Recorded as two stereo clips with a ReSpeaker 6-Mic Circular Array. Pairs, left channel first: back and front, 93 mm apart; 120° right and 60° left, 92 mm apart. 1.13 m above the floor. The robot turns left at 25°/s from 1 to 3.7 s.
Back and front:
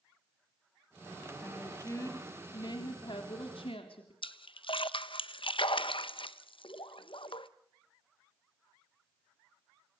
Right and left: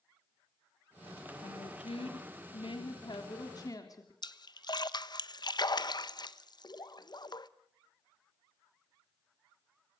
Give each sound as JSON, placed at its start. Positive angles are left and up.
{"t": 1.4, "sound": "a woman speaking", "azimuth_deg": -110, "distance_m": 3.5}
{"t": 4.2, "sound": "a splash", "azimuth_deg": -160, "distance_m": 0.9}